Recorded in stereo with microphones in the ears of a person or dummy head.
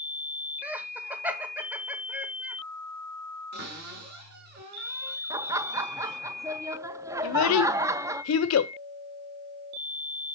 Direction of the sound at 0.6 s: 5° right (ahead or behind).